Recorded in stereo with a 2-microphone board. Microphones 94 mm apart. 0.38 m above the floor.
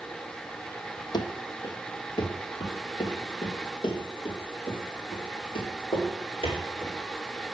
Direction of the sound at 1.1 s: 50° left (ahead or behind).